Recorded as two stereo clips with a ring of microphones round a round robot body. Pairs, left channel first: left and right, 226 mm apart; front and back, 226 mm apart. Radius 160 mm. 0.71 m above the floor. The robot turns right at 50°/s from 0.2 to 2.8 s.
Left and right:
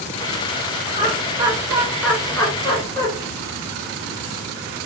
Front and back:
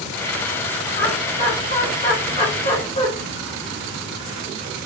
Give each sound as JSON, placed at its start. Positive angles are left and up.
{"t": 0.9, "sound": "laughter", "azimuth_deg": -55, "distance_m": 1.3}